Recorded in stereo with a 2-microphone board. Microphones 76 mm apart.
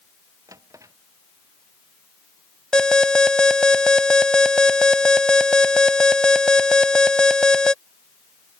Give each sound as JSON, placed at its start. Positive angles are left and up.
{"t": 0.5, "sound": "a drawer", "side_deg": -45}
{"t": 2.7, "sound": "an alarm", "side_deg": 10}